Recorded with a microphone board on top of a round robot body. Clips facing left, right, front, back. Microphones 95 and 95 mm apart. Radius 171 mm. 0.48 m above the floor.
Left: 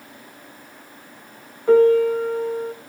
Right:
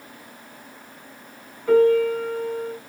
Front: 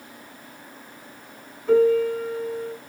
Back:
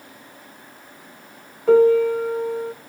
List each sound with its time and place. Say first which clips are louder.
1.7 s a piano: left 2 dB, back 4 dB; 160° left, 1.0 m